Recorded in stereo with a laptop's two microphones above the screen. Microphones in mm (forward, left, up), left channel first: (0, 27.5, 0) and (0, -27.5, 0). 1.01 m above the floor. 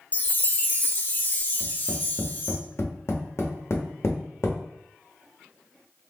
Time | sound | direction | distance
0.1 | a chime | 30° left (ahead or behind) | 0.5 m
1.6 | tapping | 55° left (ahead or behind) | 1.1 m